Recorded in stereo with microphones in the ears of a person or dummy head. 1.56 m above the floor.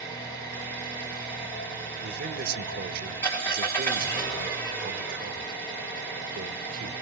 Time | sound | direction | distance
0.0 | an engine running | 15° left (ahead or behind) | 3 m
2.0 | a man speaking | 50° right (ahead or behind) | 0.8 m